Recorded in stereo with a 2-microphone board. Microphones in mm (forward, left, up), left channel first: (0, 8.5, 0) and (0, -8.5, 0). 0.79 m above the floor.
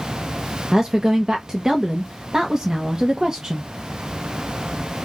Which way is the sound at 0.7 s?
35° right (ahead or behind).